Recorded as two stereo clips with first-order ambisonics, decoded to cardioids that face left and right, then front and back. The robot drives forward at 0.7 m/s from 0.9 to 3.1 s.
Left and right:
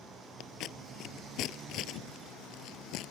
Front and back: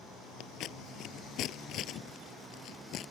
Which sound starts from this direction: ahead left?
Scissors, at 0.4 s.